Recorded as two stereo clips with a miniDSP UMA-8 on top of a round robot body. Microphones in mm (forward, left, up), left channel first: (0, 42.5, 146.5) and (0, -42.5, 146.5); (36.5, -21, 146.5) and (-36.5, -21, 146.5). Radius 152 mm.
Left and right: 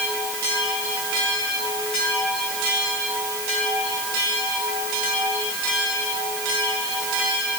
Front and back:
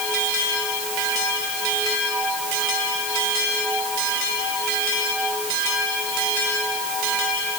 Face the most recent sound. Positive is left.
No sound to turn to.